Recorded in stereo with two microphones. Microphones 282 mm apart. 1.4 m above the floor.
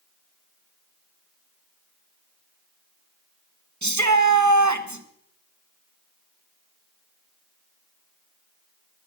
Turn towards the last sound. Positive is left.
turn(degrees=-85)